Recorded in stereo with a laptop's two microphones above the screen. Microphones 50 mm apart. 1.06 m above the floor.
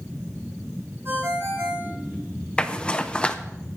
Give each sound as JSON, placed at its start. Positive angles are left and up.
{"t": 1.1, "sound": "a ringtone", "side_deg": -45, "distance_m": 5.5}
{"t": 2.6, "sound": "a zipper", "side_deg": 20, "distance_m": 0.8}